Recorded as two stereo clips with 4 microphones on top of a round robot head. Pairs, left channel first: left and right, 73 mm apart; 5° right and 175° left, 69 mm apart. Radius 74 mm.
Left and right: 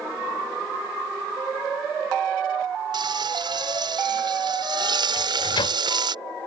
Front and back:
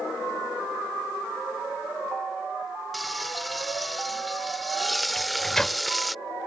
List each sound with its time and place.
2.9 s frying: 95° right
5.2 s a microwave: 75° left